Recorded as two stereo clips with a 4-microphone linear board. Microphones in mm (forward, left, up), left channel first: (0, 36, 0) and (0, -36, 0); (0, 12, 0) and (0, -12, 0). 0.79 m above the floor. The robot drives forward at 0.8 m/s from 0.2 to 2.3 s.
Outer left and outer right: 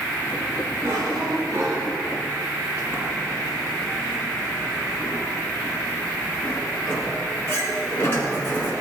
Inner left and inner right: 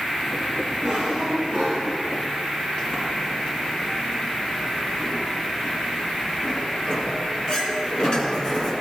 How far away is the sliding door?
About 3.5 m.